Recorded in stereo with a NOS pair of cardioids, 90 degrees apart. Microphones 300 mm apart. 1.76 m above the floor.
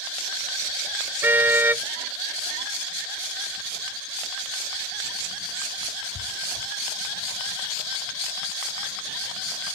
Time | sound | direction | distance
1.2 | a car horn | 5° right | ?